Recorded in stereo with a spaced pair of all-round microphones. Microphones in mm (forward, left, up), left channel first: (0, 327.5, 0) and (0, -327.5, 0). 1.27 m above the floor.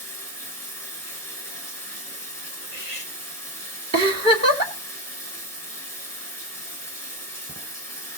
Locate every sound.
0.0 s running water: 5° left (ahead or behind), 4 m
2.6 s cutlery clinking: 75° left (ahead or behind), 2.5 m
3.9 s a giggle: 20° right (ahead or behind), 1.9 m